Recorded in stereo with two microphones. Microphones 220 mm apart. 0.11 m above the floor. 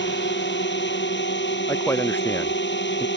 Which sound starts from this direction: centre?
A man speaking, at 1.7 s.